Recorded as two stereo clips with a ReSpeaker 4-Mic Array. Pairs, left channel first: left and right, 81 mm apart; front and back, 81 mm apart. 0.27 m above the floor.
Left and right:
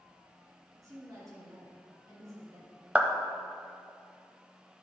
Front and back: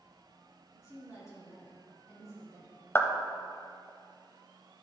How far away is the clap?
About 0.8 m.